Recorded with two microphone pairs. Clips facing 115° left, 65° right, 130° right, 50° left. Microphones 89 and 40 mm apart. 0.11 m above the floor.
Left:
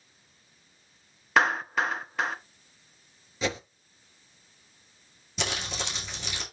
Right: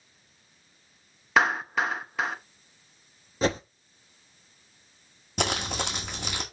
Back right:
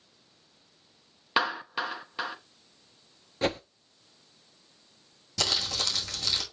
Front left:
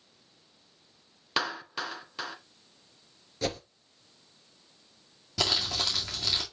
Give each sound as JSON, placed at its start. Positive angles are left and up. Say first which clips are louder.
{"t": 1.4, "sound": "a clap", "louder": "even, back right 4 dB", "azimuth_deg": -145, "distance_m": 0.9}
{"t": 3.4, "sound": "a whoosh", "louder": "right 5 dB, back right 4 dB", "azimuth_deg": -90, "distance_m": 0.8}
{"t": 5.4, "sound": "crumpling", "louder": "right 5 dB, front left 1 dB", "azimuth_deg": -30, "distance_m": 2.5}